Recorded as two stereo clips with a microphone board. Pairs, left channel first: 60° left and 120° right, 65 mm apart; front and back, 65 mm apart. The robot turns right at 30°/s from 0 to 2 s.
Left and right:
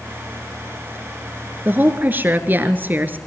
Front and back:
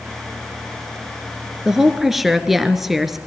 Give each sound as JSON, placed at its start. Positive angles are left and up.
{"t": 1.6, "sound": "a woman speaking", "azimuth_deg": -105, "distance_m": 1.5}